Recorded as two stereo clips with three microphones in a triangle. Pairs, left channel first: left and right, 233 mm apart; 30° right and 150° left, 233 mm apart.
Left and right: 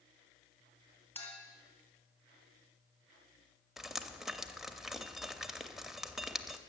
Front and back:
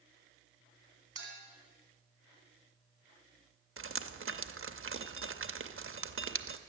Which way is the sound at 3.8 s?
Straight behind.